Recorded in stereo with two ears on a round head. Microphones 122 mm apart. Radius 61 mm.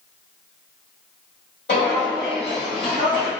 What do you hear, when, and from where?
1.7 s footsteps: 60° left (ahead or behind), 1.7 m; by 3.3 s 35° left (ahead or behind), 1.4 m